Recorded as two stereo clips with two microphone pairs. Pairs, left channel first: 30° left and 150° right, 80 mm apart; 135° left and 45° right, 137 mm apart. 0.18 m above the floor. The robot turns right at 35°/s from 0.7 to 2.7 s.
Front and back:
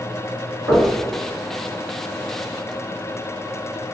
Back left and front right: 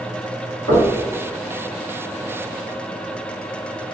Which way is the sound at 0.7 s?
175° left.